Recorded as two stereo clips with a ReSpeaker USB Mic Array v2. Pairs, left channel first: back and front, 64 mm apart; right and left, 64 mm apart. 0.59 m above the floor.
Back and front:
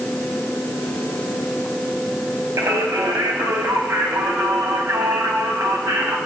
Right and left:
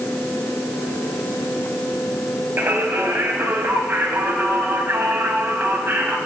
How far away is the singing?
About 2.5 m.